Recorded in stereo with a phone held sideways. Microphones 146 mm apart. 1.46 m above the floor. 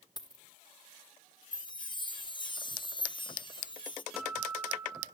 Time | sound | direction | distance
0.2 | a dropped coin | 30° left (ahead or behind) | 1.2 m
1.5 | a chime | 30° left (ahead or behind) | 0.6 m
4.1 | a guitar | 5° right (ahead or behind) | 2 m